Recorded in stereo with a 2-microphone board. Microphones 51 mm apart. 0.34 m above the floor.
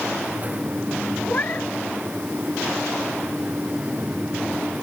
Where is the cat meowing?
30° left (ahead or behind).